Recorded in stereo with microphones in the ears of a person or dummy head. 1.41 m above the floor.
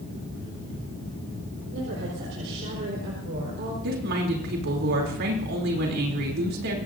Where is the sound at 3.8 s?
65° right (ahead or behind), 3 m.